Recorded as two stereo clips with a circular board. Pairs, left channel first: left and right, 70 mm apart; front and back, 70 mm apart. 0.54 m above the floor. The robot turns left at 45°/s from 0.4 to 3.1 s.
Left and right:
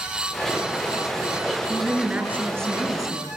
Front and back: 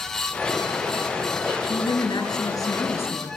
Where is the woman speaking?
15° left, 7 m; by 3.3 s 55° right, 7 m.